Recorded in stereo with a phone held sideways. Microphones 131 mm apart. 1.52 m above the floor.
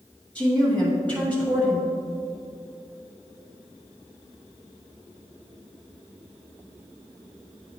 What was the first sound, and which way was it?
A woman speaking, 10° left (ahead or behind).